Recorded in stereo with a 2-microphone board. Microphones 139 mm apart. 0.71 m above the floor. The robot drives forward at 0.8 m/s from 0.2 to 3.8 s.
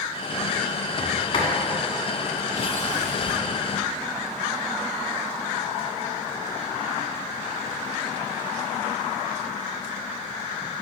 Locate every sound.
1.0 s a sliding door: 35° left (ahead or behind), 2.5 m; by 3.4 s 80° left, 1.4 m